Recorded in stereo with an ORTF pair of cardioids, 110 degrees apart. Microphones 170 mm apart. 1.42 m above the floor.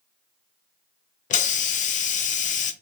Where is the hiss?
50° left, 0.7 m.